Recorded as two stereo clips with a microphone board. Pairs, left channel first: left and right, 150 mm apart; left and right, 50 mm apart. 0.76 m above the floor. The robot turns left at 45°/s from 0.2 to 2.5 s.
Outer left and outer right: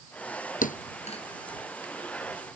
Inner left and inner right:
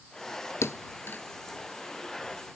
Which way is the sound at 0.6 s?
70° left (ahead or behind).